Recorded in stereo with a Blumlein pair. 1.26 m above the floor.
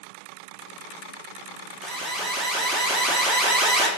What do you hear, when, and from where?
1.8 s an alarm: 10° right, 0.6 m